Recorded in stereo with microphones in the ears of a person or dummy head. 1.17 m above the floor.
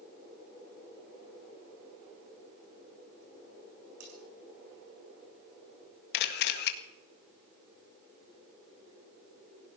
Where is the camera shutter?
60° left (ahead or behind), 1.8 m.